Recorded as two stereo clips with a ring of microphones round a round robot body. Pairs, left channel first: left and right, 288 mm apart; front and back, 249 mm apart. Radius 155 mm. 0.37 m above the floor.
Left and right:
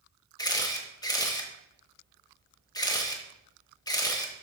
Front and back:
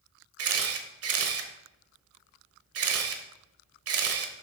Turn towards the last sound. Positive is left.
turn(degrees=165)